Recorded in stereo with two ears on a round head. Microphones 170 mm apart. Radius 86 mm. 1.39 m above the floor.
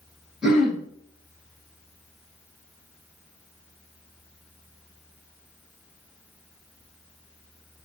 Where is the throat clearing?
5° right (ahead or behind), 1.2 m.